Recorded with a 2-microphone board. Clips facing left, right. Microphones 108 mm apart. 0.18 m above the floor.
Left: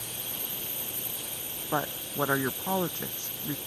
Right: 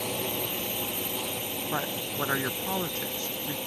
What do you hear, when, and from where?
0.0 s a drone: 70° right (ahead or behind)
1.7 s a woman speaking: 15° left (ahead or behind)